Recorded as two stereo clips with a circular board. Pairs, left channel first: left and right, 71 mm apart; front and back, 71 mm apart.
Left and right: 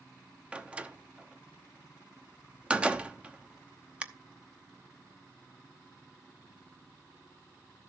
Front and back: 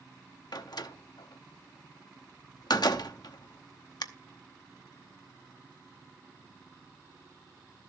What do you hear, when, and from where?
0.5 s a door slam: 15° right, 0.8 m